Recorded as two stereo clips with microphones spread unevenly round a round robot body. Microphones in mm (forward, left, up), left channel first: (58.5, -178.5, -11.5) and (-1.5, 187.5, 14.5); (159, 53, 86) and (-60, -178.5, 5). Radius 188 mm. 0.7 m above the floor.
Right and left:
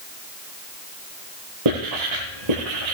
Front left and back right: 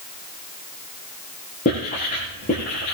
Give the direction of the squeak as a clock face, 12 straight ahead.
I don't hear a squeak.